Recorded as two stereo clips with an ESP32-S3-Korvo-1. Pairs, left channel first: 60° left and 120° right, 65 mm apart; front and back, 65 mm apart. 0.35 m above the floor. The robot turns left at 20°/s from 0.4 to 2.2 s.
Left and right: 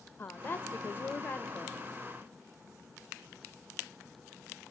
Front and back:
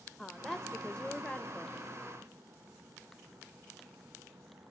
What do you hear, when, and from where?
0.2 s a woman speaking: 80° left, 1.0 m; by 1.8 s 50° left, 1.0 m